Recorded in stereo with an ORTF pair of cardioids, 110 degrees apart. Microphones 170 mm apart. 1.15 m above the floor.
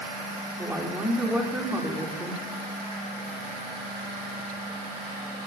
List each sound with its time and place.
0.6 s a woman speaking: 10° right, 3 m